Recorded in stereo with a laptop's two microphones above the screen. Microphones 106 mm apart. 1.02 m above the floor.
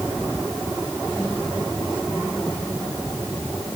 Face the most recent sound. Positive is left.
No sound to turn to.